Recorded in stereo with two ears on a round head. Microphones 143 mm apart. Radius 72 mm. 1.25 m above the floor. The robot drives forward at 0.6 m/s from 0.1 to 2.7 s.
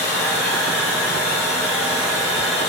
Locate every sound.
0.0 s running water: 70° left (ahead or behind), 2 m; by 2.7 s 45° left (ahead or behind), 3 m